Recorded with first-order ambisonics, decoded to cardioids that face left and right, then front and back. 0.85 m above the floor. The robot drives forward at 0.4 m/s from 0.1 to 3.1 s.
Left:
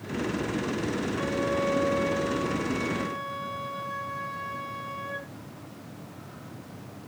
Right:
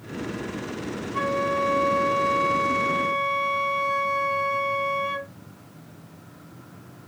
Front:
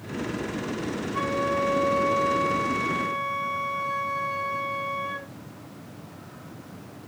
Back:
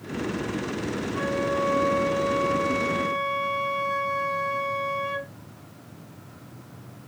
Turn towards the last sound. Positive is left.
turn(degrees=-100)